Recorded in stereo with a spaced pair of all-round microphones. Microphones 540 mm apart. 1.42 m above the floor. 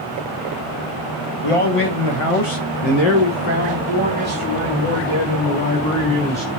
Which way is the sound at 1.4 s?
70° left (ahead or behind).